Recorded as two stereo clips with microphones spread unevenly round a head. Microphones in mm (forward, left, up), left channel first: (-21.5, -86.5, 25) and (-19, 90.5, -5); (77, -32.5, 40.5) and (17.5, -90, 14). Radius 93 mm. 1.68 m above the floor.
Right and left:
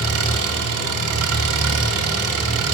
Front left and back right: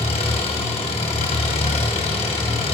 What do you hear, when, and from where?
0.0 s an engine running: 80° left, 2.5 m